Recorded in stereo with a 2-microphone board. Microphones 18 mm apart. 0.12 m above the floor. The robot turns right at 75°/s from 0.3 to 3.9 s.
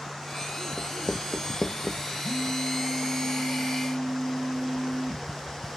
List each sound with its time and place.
0.8 s writing: 35° left (ahead or behind), 0.9 m; by 2.1 s 40° left (ahead or behind), 0.9 m
2.2 s a phone buzzing: 70° left, 1.4 m; by 5.3 s 160° right, 1.4 m